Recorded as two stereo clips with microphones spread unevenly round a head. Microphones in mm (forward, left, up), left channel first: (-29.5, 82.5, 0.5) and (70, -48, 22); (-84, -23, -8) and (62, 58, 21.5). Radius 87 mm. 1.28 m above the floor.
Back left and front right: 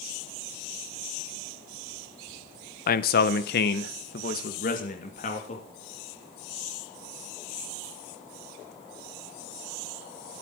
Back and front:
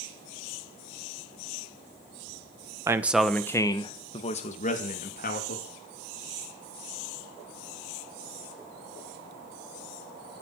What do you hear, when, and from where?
2.9 s a man speaking: 105° left, 1.2 m; by 5.7 s straight behind, 3 m